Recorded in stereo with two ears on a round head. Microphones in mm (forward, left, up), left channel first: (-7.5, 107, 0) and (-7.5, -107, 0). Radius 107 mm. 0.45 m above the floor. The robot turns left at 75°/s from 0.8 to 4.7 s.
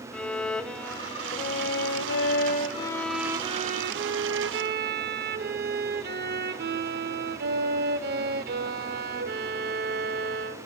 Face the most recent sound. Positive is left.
turn(degrees=-120)